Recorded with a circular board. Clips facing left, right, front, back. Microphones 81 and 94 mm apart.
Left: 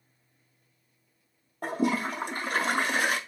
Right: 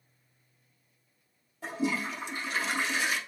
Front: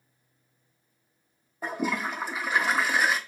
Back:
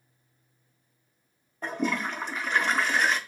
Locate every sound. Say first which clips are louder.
1.6 s a toilet flushing: left 4 dB, even; 80° left, 0.5 m